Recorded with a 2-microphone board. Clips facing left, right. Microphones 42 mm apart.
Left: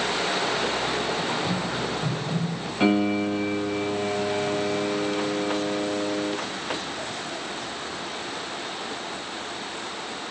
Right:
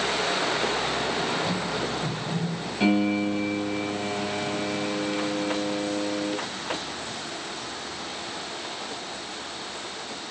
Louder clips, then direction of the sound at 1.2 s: Even; 10° left (ahead or behind).